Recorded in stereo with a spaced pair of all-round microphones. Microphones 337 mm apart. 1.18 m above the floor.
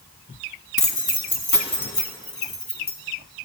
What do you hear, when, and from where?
0.8 s keys jangling: 65° left (ahead or behind), 1.0 m; by 3.0 s 50° left (ahead or behind), 1.9 m